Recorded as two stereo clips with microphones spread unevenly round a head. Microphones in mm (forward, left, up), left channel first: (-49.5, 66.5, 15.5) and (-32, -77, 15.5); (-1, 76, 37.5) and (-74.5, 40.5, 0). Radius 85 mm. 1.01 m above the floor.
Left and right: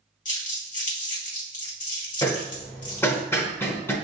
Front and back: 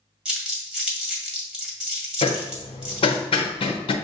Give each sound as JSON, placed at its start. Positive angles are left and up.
{"t": 0.2, "sound": "crumpling", "azimuth_deg": 130, "distance_m": 1.9}
{"t": 2.2, "sound": "hammering", "azimuth_deg": 30, "distance_m": 0.6}